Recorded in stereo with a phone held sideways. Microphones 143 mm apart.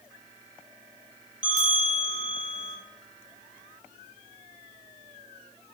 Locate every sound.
1.4 s a bell: 65° right (ahead or behind), 0.7 m